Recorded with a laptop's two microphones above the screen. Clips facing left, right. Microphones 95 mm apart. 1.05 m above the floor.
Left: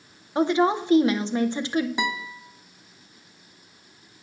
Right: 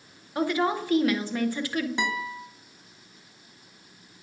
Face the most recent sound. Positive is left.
turn(degrees=10)  # may be behind; listen again after turning